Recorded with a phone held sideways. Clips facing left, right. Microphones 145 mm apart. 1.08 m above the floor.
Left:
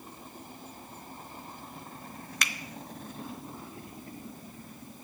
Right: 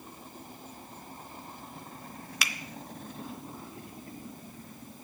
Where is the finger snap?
5° right (ahead or behind), 0.6 m.